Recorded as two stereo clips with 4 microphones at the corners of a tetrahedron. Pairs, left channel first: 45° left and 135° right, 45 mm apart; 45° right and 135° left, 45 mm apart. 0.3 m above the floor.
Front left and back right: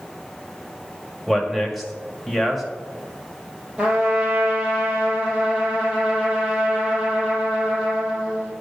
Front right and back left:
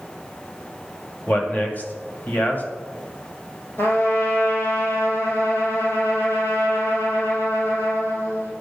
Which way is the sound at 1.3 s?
50° right.